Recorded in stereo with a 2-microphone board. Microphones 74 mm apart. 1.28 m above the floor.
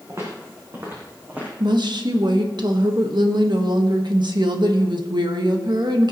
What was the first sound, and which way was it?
Footsteps, 45° right (ahead or behind).